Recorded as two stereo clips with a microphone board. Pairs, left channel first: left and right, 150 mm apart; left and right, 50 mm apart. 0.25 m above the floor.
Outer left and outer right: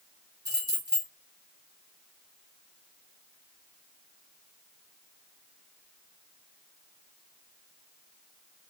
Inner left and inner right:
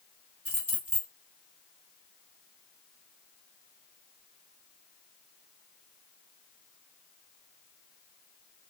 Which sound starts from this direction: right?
Keys jangling, at 0.5 s.